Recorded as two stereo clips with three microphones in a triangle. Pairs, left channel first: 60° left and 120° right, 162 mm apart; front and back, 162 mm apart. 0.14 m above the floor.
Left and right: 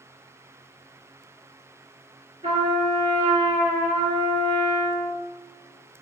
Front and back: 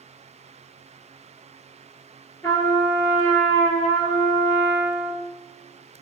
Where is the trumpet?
70° right, 1.9 m.